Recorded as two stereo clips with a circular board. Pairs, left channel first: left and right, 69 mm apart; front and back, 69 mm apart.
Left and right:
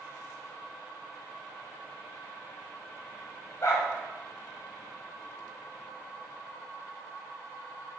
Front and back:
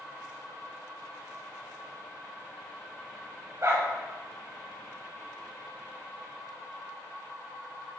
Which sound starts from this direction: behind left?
A dog barking, at 3.6 s.